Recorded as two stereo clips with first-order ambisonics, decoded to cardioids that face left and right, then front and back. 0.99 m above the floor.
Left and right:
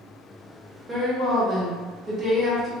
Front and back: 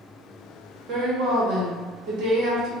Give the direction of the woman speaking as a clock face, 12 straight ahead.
5 o'clock.